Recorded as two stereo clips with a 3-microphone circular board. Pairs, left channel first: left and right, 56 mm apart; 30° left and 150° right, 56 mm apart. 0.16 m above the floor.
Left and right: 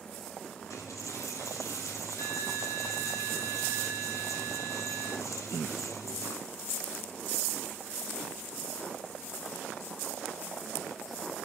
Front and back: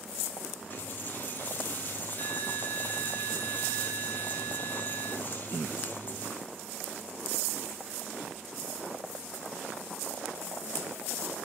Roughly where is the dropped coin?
Left.